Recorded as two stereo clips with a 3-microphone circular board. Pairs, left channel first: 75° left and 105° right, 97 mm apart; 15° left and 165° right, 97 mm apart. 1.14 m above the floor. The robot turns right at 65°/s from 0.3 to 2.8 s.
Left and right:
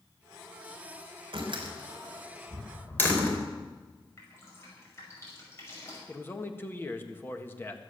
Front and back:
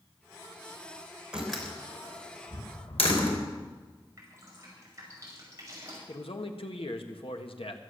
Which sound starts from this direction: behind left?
Dripping, at 4.2 s.